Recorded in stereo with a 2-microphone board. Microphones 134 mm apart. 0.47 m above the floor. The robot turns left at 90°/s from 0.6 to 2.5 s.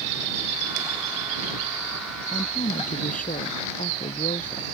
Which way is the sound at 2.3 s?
65° left (ahead or behind).